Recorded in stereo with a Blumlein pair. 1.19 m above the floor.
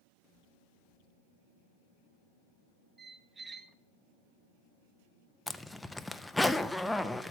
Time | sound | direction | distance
3.0 | a squeak | 15° right | 0.7 m
5.5 | a zipper | 5° left | 0.7 m